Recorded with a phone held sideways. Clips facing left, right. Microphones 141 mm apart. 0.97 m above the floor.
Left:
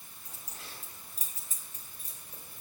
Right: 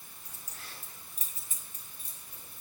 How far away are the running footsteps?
I don't hear running footsteps.